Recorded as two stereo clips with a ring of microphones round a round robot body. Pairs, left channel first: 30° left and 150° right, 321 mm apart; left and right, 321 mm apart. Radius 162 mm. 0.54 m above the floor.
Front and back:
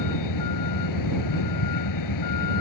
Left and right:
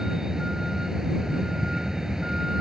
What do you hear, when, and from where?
0.0 s a vehicle: straight ahead